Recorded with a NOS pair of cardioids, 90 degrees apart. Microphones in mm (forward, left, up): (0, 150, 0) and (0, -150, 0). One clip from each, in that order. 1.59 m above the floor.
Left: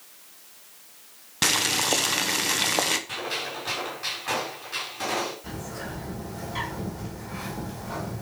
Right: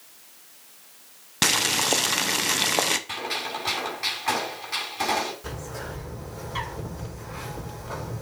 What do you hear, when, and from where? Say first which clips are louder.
1.4 s boiling: right 1 dB; 20° right, 0.7 m
3.1 s a gunshot: right 1 dB; 45° right, 6 m
5.4 s a bird: right 1 dB; 45° right, 5.5 m